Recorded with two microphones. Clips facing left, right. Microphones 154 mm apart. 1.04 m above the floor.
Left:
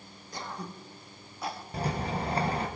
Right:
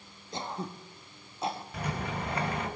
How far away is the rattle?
About 1.4 m.